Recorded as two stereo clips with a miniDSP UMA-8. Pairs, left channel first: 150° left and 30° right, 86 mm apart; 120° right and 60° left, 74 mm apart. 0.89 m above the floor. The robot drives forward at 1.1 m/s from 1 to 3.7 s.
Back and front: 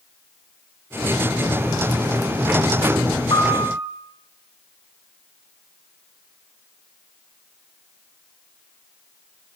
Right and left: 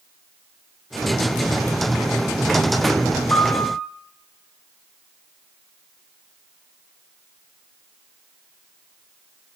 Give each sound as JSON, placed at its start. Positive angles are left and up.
{"t": 3.3, "sound": "a piano", "azimuth_deg": 180, "distance_m": 8.0}